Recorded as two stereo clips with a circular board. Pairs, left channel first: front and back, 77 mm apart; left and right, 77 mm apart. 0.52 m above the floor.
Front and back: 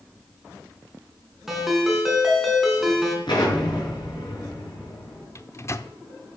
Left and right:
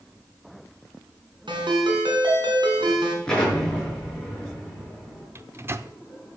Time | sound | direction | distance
1.5 | a ringtone | 95° right | 3.5 m
3.3 | an explosion | 10° left | 6 m
5.3 | a microwave | 40° right | 0.7 m